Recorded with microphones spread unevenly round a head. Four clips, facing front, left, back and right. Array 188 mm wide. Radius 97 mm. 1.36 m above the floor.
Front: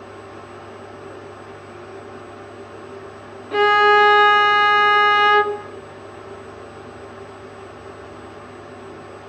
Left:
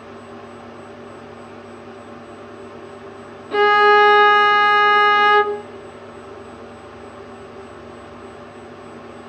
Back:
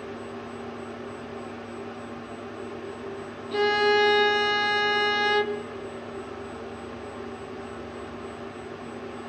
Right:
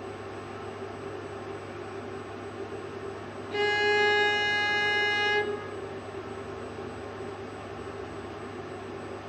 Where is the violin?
55° left, 0.6 m.